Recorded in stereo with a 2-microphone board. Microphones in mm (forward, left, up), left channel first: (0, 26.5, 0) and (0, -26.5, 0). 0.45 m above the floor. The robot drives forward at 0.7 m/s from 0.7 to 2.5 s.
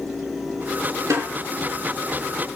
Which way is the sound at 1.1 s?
70° right (ahead or behind).